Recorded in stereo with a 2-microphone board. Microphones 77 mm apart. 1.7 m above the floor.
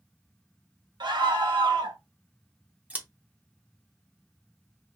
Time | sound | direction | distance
1.0 | a scream | 75° right (ahead or behind) | 1.1 m
2.9 | scissors | 20° right (ahead or behind) | 0.9 m